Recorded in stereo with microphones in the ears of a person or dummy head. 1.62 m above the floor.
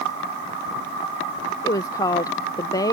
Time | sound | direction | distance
1.6 | a woman speaking | 25° left (ahead or behind) | ?